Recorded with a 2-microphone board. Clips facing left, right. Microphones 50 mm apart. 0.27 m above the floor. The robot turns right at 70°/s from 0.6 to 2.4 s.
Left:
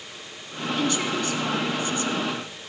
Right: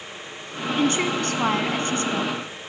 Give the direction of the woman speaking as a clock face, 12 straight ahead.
5 o'clock.